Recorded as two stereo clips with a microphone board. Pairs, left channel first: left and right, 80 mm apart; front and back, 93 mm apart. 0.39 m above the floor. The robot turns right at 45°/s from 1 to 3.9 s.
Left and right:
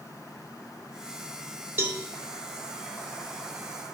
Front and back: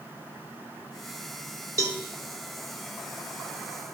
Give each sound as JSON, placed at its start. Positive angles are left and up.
{"t": 1.8, "sound": "a cowbell", "azimuth_deg": -140, "distance_m": 0.8}